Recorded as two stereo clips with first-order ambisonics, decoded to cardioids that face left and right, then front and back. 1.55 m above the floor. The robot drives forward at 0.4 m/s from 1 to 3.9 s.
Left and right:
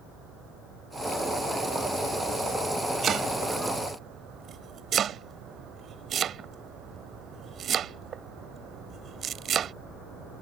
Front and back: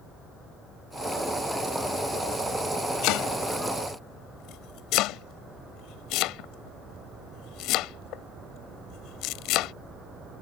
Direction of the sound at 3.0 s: 30° right.